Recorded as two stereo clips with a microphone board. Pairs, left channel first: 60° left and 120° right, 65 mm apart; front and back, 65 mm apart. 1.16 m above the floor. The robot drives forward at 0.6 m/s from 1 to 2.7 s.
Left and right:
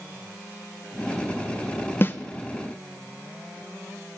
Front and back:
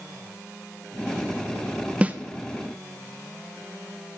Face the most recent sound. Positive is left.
turn(degrees=135)